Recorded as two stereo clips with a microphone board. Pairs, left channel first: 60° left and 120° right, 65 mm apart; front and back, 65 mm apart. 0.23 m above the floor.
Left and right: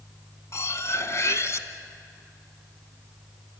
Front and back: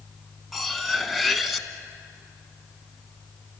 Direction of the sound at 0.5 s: 90° left.